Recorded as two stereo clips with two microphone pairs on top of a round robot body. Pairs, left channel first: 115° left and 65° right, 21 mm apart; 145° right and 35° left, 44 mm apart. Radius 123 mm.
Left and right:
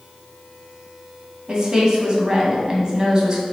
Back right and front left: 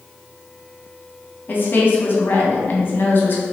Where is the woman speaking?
115° right, 1.7 m.